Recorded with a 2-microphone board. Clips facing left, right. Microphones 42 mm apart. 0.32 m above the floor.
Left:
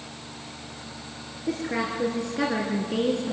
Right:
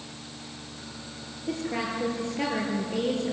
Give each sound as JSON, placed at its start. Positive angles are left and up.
{"t": 1.5, "sound": "a woman speaking", "side_deg": 80, "distance_m": 5.5}